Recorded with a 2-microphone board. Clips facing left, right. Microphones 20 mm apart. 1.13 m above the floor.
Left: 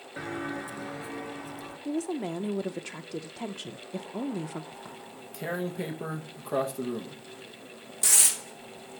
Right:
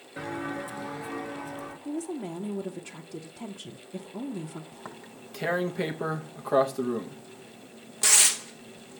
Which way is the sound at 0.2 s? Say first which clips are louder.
Right 1 dB; 10° left (ahead or behind).